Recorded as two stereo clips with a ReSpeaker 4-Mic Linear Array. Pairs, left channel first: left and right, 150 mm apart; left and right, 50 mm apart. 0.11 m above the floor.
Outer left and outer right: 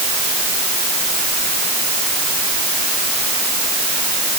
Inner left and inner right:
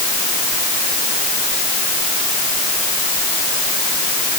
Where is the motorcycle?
I don't hear a motorcycle.